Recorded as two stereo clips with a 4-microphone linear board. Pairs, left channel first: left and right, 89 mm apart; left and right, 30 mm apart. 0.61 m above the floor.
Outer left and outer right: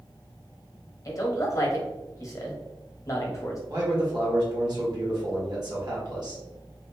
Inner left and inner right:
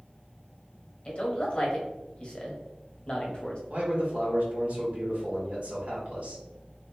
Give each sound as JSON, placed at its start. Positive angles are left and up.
{"t": 1.1, "sound": "a man speaking", "side_deg": 35, "distance_m": 1.0}
{"t": 3.7, "sound": "a man speaking", "side_deg": -55, "distance_m": 1.4}